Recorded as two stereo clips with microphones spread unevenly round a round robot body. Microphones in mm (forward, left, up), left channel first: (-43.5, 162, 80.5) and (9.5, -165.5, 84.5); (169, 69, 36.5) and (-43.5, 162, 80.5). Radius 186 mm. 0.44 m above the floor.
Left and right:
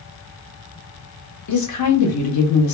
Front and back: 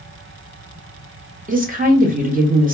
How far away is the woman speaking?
About 1.2 m.